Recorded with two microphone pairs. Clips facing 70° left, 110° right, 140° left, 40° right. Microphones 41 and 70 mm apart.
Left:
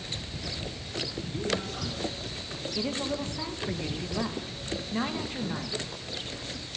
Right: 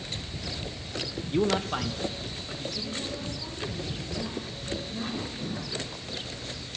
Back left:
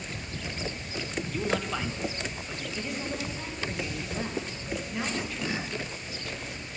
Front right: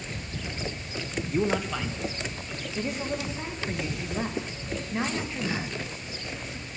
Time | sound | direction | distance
1.3 | a man speaking | 85° right | 0.6 m
2.8 | a woman speaking | 30° left | 1.4 m